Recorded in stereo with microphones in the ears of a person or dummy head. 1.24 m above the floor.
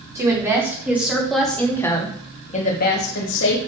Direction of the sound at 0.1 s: 15° right (ahead or behind).